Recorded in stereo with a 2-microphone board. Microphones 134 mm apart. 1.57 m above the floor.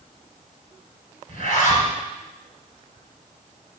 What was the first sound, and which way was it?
A zipper, 65° left (ahead or behind).